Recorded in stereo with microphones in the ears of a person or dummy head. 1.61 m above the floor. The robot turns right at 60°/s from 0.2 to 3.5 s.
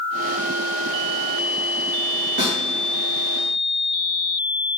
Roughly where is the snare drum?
Right.